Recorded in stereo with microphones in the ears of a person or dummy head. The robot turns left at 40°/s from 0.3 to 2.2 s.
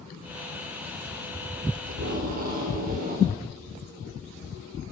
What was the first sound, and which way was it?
Tape being pulled, 65° right (ahead or behind).